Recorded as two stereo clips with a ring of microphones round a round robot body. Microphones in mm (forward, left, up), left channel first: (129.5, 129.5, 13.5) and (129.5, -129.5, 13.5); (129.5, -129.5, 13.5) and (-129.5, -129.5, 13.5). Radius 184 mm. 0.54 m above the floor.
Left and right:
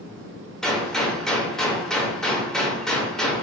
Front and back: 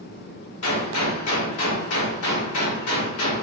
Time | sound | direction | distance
0.6 | a gunshot | straight ahead | 1.0 m